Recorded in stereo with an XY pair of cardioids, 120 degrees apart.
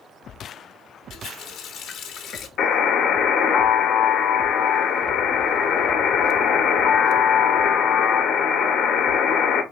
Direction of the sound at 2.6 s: 65° left.